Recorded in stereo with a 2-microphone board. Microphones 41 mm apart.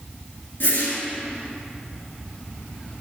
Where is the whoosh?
60° left (ahead or behind), 2.5 m.